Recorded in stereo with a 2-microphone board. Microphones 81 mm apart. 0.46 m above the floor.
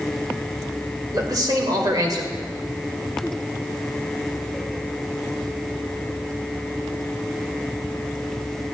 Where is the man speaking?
55° right (ahead or behind), 1.9 m.